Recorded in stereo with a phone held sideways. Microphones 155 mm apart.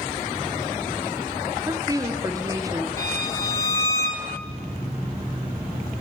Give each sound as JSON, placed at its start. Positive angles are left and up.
{"t": 1.7, "sound": "a woman speaking", "side_deg": -20, "distance_m": 0.5}
{"t": 3.0, "sound": "a violin", "side_deg": 20, "distance_m": 1.2}